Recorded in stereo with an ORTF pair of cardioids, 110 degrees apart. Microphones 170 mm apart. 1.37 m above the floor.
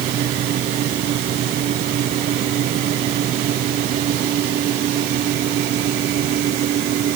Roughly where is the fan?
Ahead right.